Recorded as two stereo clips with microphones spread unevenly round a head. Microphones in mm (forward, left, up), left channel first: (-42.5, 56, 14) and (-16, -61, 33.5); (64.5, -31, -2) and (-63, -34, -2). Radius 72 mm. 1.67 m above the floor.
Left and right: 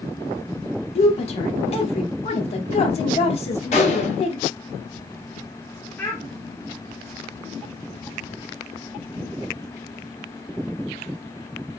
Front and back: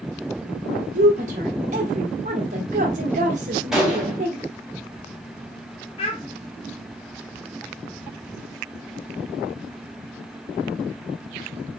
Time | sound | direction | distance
0.9 | a woman speaking | 140° left | 1.1 m
3.7 | a gunshot | 100° left | 1.4 m
6.0 | a child speaking | 20° left | 0.6 m